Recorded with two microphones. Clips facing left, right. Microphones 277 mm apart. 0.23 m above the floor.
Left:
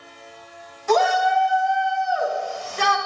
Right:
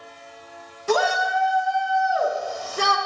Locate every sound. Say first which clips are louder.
0.9 s a shout: left 3 dB; 40° right (ahead or behind), 2 m; by 3.0 s 50° right (ahead or behind), 2.5 m